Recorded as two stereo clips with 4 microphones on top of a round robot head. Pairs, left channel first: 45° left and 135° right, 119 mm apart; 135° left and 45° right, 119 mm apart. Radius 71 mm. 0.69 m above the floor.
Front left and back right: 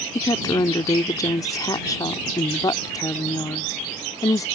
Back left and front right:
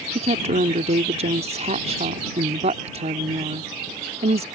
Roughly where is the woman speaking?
Ahead.